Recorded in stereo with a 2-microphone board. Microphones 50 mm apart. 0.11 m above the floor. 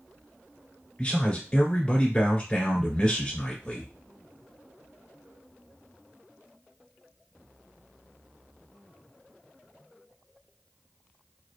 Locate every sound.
1.0 s a man speaking: 25° left (ahead or behind), 1.6 m